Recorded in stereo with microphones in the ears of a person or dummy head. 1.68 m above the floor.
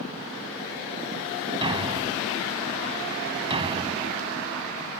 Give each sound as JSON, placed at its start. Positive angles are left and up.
{"t": 1.6, "sound": "a thud", "side_deg": -25}